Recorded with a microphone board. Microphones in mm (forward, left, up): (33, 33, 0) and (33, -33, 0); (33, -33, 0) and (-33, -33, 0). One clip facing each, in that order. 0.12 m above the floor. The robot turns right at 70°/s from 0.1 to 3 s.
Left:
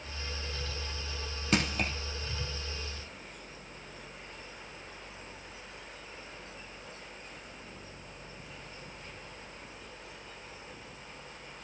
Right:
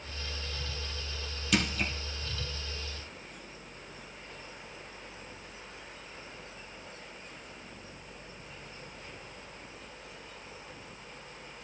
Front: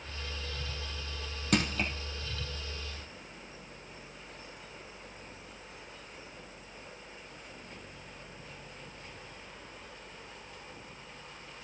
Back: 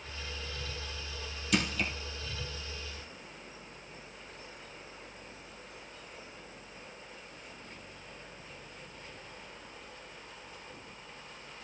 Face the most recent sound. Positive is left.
turn(degrees=140)